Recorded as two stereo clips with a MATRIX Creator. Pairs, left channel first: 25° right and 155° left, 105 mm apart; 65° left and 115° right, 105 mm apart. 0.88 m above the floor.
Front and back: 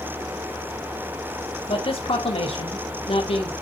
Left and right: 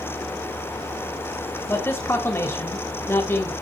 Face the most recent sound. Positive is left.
turn(degrees=0)